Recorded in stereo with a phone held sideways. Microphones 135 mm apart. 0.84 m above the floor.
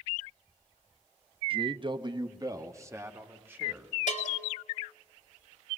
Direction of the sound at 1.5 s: 40° right (ahead or behind).